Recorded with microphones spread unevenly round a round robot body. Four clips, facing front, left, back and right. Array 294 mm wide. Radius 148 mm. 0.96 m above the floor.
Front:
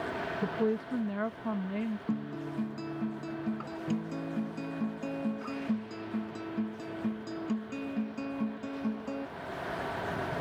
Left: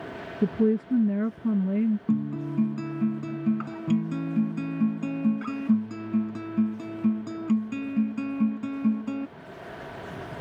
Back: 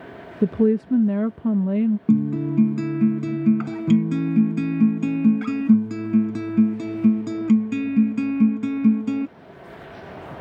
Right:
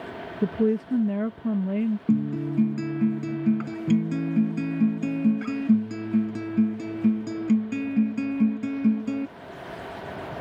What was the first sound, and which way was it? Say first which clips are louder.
A woman speaking: even, back 13 dB; 170° left.